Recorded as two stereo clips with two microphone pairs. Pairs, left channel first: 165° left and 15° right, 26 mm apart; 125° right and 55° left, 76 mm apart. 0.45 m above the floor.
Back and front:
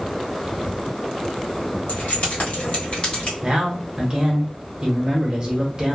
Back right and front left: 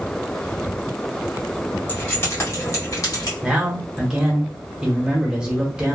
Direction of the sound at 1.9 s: 175° left.